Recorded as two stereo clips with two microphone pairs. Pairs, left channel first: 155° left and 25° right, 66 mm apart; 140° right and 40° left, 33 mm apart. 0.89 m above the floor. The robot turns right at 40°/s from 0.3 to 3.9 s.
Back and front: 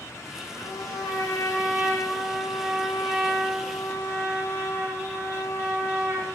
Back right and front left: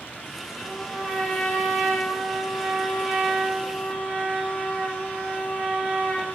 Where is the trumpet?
150° left, 7 m; by 6.3 s 80° right, 7 m.